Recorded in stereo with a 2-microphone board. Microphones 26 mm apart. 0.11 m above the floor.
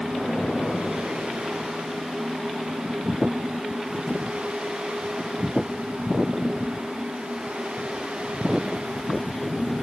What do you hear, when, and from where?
0.1 s an explosion: 60° left (ahead or behind), 6 m